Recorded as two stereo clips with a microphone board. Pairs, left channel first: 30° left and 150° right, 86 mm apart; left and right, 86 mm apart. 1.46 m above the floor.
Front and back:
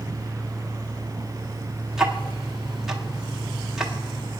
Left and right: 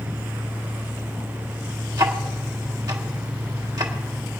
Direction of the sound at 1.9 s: 65° right.